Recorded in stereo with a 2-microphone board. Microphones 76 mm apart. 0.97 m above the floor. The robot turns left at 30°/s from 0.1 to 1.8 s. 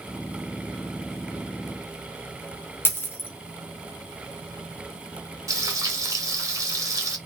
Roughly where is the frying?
Right.